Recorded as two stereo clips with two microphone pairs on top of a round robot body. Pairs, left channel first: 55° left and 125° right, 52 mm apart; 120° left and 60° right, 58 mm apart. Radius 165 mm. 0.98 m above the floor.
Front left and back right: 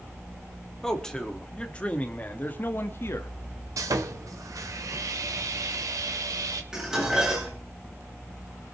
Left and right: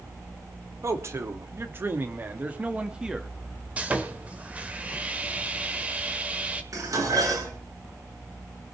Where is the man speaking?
25° right, 3 m; by 3.3 s 20° left, 2 m.